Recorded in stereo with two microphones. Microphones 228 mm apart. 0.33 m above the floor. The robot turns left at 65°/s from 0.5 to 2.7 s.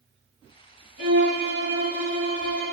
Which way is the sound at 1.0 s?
115° left.